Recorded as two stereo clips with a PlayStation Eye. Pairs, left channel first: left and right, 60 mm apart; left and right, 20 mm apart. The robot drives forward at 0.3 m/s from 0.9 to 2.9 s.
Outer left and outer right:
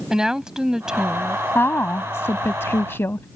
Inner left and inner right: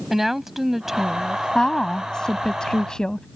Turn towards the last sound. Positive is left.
turn(degrees=40)  # may be behind; listen again after turning